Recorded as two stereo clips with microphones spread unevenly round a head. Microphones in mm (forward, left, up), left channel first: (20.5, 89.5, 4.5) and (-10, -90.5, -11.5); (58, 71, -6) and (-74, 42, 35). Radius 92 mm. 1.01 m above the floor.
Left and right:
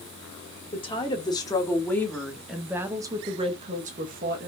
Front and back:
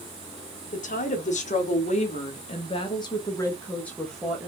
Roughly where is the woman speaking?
Ahead.